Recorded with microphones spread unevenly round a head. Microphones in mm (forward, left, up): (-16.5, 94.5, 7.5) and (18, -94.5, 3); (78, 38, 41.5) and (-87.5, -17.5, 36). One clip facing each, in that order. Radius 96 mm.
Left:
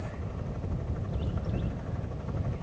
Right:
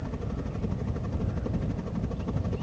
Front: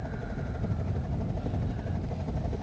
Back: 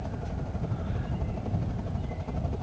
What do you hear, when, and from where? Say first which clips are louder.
0.0 s a helicopter: right 5 dB, even; 60° right